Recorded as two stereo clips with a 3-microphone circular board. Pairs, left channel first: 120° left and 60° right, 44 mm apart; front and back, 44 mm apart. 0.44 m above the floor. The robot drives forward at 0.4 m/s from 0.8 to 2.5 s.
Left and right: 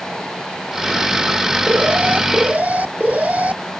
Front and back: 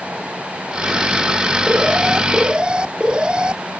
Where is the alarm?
110° right.